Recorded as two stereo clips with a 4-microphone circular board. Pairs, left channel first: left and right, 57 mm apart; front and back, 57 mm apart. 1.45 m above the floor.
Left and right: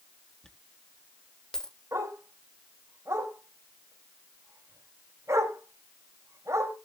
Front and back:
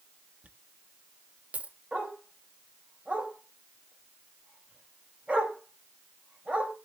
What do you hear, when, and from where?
0.4 s a dropped coin: 160° left, 0.9 m
1.9 s a dog barking: 115° right, 3.5 m